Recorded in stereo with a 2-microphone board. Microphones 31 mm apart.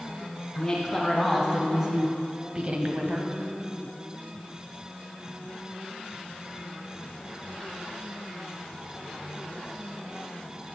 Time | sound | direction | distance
0.6 | a woman speaking | 10° left (ahead or behind) | 2.5 m